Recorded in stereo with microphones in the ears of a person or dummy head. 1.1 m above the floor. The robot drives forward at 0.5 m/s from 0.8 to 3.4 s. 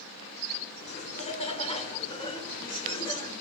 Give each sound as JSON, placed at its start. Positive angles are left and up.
{"t": 0.9, "sound": "laughter", "side_deg": 35, "distance_m": 2.5}